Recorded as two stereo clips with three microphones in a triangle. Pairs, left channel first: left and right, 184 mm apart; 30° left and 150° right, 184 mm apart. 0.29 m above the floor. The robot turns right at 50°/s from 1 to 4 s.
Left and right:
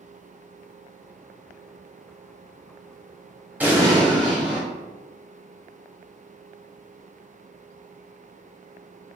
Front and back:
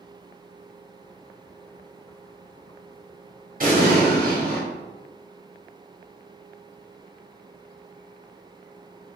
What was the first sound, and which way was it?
An explosion, 170° right.